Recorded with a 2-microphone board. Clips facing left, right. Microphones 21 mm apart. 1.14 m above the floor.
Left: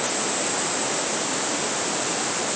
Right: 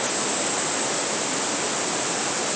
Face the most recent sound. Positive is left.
No sound to turn to.